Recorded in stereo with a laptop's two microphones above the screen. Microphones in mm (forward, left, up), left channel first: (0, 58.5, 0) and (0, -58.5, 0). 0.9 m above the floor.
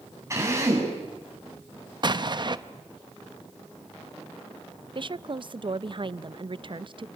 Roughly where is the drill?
Right.